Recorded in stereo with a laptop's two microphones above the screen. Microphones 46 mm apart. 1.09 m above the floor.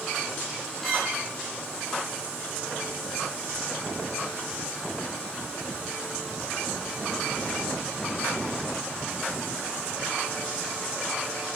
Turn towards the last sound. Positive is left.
turn(degrees=5)  # may be behind; listen again after turning